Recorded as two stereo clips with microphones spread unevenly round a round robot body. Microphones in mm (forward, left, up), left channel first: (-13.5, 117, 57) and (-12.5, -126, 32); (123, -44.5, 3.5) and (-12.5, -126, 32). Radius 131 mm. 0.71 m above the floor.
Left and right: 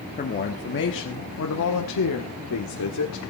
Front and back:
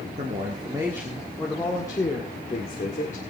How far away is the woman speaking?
About 1.6 m.